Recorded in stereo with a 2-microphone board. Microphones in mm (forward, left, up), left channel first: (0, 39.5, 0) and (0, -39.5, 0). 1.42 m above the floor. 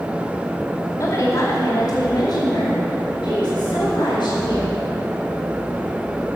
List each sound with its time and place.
1.0 s a woman speaking: 40° left (ahead or behind), 2.5 m; by 4.8 s 85° left, 5 m